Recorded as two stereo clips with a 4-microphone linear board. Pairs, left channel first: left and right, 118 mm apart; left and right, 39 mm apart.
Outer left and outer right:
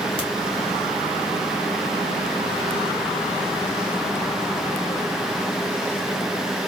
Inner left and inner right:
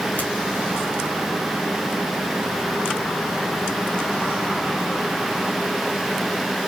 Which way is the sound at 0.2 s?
45° left (ahead or behind).